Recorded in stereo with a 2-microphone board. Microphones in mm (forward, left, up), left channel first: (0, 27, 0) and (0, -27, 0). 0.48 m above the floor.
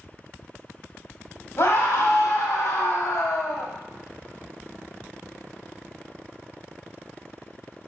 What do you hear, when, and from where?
1.6 s a scream: 60° left (ahead or behind), 2.5 m; by 3.7 s 70° left (ahead or behind), 2.5 m